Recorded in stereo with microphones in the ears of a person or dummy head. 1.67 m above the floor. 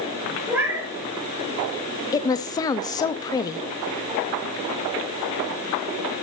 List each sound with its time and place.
0.5 s a cat meowing: 10° right (ahead or behind), 5 m
2.1 s a woman speaking: 20° left (ahead or behind), 0.7 m